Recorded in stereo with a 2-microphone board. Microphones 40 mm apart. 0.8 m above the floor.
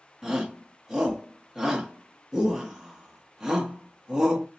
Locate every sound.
0.2 s a shout: 15° right (ahead or behind), 1.1 m